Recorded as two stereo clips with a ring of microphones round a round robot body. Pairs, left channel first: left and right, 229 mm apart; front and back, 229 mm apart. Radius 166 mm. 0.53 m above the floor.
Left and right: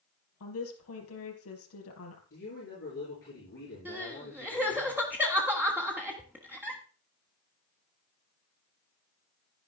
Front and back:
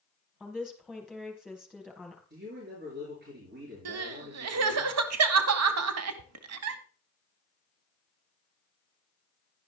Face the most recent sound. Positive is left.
turn(degrees=-175)